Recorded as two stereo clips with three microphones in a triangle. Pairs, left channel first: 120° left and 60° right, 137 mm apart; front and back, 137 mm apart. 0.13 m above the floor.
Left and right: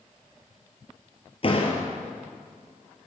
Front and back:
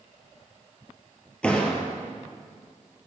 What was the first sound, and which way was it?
A door slam, 80° left.